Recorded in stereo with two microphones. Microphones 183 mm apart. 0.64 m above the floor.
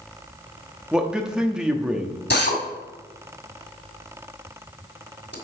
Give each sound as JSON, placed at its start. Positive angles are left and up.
{"t": 0.9, "sound": "a man speaking", "side_deg": -5, "distance_m": 1.0}
{"t": 2.3, "sound": "a drill", "side_deg": 70, "distance_m": 1.9}